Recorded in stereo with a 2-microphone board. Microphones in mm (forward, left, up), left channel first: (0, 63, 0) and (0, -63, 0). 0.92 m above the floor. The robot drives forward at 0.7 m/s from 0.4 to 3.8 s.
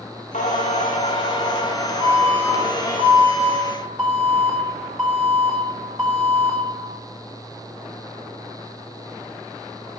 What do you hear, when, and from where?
0.3 s singing: 75° left (ahead or behind), 1.1 m; by 3.0 s 30° left (ahead or behind), 2 m
2.0 s an alarm: 45° right (ahead or behind), 2.5 m; by 6.6 s 30° right (ahead or behind), 3.5 m